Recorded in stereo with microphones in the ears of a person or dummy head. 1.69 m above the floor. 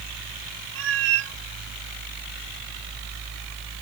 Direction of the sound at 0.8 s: 75° right (ahead or behind).